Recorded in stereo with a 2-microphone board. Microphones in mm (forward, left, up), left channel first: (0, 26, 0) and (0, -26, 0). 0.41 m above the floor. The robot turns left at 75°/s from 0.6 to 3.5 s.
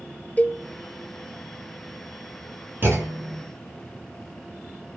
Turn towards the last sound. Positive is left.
turn(degrees=-90)